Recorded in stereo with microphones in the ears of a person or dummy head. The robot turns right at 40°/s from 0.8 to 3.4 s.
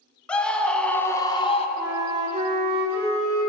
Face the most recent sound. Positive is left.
turn(degrees=-110)